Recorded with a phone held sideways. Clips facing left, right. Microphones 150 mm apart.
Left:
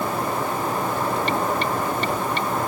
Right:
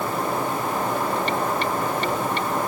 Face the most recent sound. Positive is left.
No sound to turn to.